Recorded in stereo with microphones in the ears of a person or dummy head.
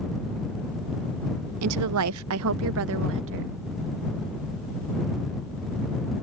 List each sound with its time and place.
1.6 s a woman speaking: 80° right; by 3.5 s 65° right (ahead or behind)